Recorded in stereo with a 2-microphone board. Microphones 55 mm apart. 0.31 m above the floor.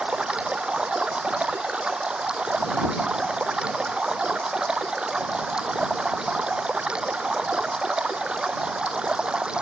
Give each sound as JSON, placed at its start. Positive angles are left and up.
{"t": 0.0, "sound": "running water", "side_deg": -15}